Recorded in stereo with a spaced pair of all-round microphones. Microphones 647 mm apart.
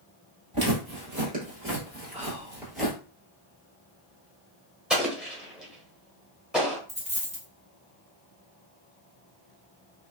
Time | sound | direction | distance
0.5 | footsteps | 35° right (ahead or behind) | 2.0 m
2.1 | whispering | 10° right (ahead or behind) | 0.7 m
4.9 | an explosion | centre (ahead or behind) | 0.9 m
6.9 | a dropped coin | 10° right (ahead or behind) | 1.0 m